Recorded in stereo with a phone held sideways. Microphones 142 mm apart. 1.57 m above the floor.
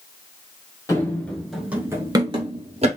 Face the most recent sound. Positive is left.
turn(degrees=-45)  # may be behind; listen again after turning